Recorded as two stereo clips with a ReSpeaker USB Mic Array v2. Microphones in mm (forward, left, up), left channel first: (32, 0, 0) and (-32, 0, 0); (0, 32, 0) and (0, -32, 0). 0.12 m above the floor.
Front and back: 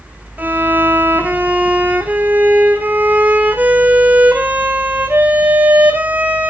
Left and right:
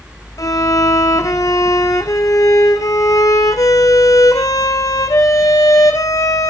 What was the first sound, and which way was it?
A violin, 115° left.